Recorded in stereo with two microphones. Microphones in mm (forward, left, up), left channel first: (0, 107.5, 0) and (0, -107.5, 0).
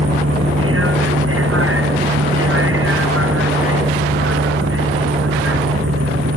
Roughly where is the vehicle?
Right.